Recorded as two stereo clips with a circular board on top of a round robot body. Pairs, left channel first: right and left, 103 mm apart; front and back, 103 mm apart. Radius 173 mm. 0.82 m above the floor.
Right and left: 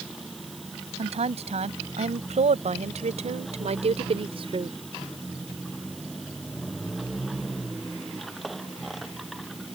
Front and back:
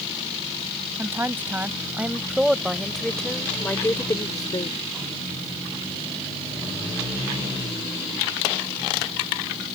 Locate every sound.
1.0 s a woman speaking: 110° left; by 4.8 s 45° left